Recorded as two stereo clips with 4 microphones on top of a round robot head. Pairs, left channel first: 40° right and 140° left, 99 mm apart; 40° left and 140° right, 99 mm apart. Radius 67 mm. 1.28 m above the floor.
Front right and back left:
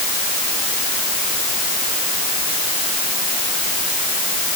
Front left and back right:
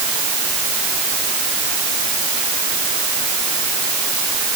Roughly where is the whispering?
No whispering in this recording.